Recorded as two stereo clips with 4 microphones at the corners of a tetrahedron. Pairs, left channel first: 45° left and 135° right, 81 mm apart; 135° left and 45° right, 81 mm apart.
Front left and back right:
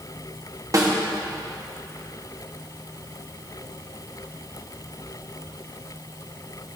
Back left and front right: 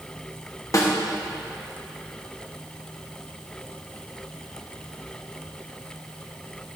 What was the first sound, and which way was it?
A snare drum, straight behind.